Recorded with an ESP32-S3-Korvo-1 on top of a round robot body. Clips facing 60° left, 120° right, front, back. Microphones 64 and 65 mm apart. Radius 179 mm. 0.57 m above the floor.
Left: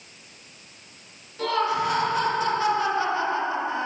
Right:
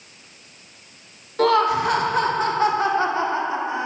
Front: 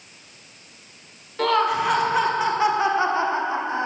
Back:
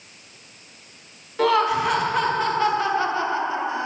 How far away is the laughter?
About 2.0 m.